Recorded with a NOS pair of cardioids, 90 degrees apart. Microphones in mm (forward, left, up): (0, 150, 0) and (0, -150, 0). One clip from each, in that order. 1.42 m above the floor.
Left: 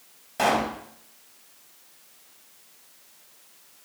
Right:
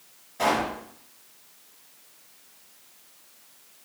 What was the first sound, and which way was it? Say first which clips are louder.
A pop: left 1 dB; 65° left.